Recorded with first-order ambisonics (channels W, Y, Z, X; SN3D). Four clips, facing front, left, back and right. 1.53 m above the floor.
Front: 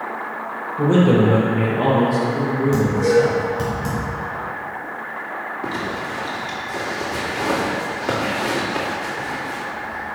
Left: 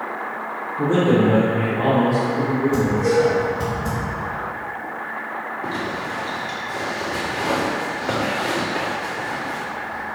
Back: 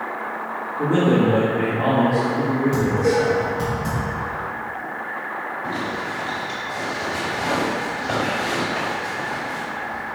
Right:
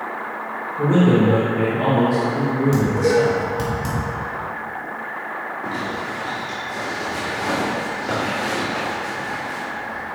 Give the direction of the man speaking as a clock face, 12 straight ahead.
12 o'clock.